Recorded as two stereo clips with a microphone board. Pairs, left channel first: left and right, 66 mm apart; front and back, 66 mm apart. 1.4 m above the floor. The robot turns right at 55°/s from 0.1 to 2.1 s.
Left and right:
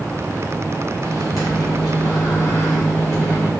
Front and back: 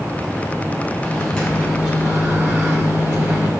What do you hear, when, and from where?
1.0 s a microwave: 65° left, 3 m; by 3.5 s 125° left, 3 m